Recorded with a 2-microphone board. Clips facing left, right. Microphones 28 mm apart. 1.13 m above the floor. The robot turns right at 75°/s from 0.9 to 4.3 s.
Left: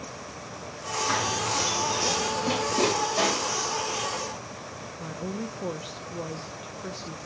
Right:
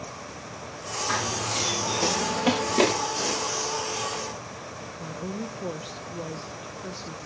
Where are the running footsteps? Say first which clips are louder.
Even; 5° left (ahead or behind), 7 m; by 2.9 s 30° right (ahead or behind), 7.5 m.